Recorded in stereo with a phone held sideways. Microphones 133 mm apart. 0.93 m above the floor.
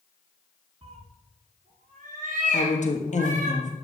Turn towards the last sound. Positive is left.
turn(degrees=60)  # may be behind; listen again after turning